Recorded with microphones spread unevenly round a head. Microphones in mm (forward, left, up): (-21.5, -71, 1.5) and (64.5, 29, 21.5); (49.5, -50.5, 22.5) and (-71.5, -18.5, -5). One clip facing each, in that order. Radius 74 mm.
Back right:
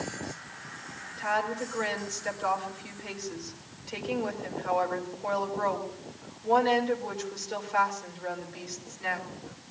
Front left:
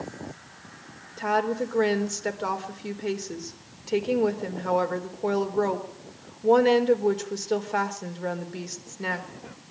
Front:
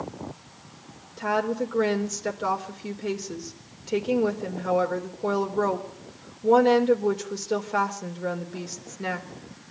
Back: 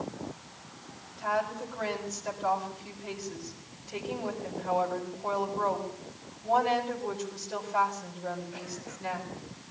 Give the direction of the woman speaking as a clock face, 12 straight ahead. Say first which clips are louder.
Front left 5 dB, front 5 dB; 12 o'clock.